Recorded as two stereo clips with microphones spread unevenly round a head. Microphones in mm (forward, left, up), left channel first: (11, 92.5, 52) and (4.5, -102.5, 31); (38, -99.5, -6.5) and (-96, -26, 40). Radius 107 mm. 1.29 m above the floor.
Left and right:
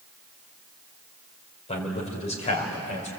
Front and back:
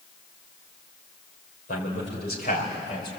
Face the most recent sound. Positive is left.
turn(degrees=35)